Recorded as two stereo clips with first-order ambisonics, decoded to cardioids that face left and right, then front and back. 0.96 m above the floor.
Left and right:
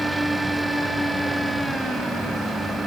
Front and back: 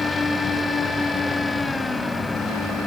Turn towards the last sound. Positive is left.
No sound to turn to.